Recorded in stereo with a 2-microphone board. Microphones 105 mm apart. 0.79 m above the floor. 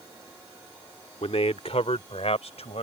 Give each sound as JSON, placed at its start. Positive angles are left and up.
{"t": 1.2, "sound": "a man speaking", "side_deg": 70}